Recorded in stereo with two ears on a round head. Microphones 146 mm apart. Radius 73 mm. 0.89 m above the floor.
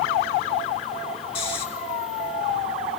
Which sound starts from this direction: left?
Snoring, at 1.4 s.